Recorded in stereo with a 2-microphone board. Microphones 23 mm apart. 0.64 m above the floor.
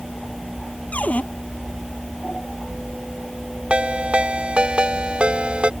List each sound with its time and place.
0.9 s a cupboard door: 85° left
3.7 s a ringtone: 45° right (ahead or behind)